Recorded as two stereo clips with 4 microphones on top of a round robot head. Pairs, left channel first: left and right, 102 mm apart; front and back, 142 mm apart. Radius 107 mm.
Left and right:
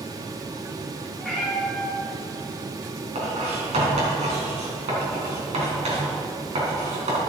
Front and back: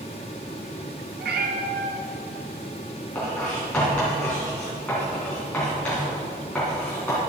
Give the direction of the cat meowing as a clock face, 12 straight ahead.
6 o'clock.